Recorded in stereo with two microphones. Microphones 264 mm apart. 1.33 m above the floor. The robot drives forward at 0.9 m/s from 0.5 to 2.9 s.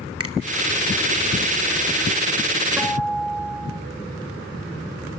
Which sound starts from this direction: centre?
A guitar, at 2.8 s.